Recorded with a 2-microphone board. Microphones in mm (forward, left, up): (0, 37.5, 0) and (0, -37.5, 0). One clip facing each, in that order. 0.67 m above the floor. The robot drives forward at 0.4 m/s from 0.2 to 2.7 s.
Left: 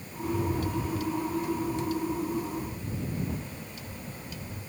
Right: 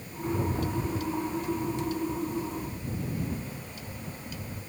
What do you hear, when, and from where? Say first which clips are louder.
0.2 s a rattle: even; 35° right (ahead or behind), 0.8 m; by 4.6 s 15° right (ahead or behind), 1.7 m